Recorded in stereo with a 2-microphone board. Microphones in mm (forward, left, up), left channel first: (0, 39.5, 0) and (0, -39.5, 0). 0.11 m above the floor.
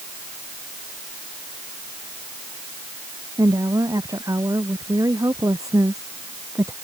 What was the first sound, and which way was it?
A woman speaking, 50° right (ahead or behind).